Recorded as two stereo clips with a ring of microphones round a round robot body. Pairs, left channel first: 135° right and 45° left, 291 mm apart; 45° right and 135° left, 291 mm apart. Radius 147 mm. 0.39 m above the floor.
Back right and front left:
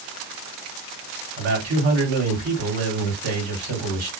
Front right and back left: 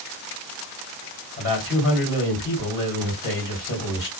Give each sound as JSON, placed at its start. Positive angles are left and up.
{"t": 1.4, "sound": "a man speaking", "azimuth_deg": -5, "distance_m": 2.5}